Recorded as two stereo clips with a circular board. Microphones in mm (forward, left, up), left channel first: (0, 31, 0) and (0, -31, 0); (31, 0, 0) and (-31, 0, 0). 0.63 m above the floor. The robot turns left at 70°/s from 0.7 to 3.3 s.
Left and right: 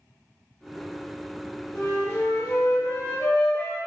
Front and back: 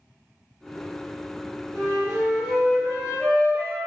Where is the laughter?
No laughter in this recording.